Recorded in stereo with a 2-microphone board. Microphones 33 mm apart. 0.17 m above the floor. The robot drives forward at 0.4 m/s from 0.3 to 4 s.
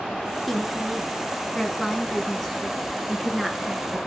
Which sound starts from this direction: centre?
A woman speaking, at 0.5 s.